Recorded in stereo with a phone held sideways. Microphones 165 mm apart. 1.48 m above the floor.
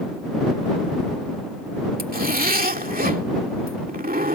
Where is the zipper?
70° right (ahead or behind).